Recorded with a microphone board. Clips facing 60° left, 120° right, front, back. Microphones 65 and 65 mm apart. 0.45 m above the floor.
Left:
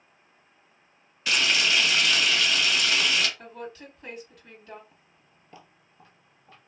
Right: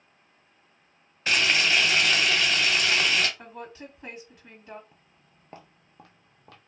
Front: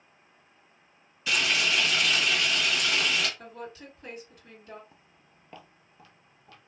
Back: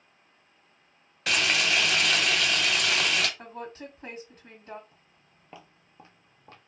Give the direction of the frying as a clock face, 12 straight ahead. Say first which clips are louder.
Right 1 dB, back 1 dB; 6 o'clock.